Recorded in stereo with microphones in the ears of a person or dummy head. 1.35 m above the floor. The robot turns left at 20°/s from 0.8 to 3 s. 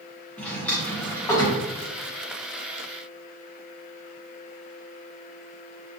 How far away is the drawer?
About 0.9 m.